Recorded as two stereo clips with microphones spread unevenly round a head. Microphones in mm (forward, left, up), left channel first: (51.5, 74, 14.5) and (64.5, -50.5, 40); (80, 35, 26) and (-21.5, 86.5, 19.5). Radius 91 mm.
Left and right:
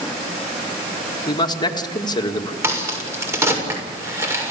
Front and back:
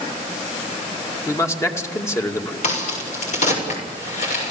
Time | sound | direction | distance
1.3 | a man speaking | 40° left | 2.5 m
2.6 | a crack | 15° right | 7 m